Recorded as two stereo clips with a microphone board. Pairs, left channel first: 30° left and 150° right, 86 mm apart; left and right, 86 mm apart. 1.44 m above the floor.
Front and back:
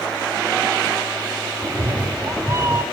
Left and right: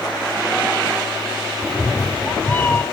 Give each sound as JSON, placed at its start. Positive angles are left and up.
{"t": 1.6, "sound": "a cat meowing", "azimuth_deg": 165, "distance_m": 1.8}